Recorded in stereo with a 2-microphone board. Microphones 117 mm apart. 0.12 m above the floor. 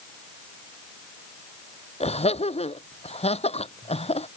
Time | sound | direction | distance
2.0 | laughter | 60° left (ahead or behind) | ?